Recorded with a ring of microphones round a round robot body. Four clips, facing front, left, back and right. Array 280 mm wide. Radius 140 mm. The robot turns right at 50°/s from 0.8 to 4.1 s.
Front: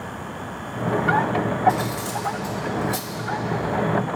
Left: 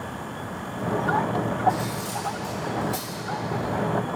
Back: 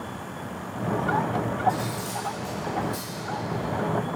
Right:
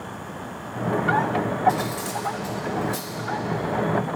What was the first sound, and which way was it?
Cutlery clinking, 60° right.